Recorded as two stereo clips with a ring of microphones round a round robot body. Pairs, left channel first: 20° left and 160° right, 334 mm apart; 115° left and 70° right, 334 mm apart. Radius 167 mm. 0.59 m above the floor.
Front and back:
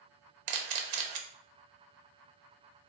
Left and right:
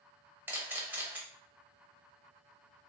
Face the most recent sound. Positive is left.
turn(degrees=-150)